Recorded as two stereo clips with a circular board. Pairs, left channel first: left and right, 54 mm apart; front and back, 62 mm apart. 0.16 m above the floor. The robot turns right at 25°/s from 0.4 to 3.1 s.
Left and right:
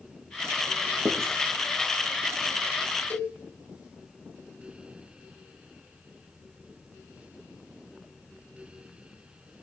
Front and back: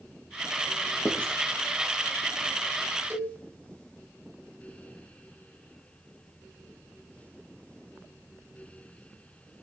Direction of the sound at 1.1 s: 70° right.